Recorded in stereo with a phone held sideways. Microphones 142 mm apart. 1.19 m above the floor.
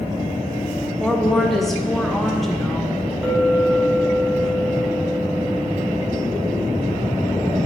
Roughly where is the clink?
Centre.